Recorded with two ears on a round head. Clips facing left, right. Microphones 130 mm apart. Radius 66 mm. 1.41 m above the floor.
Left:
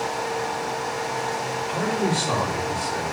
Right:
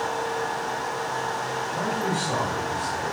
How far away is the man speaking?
About 2.5 m.